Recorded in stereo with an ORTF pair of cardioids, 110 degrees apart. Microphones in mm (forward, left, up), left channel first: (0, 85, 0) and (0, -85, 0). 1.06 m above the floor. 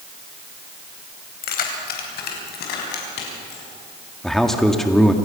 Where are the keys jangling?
60° left, 3.5 m; by 3.6 s 80° left, 6 m.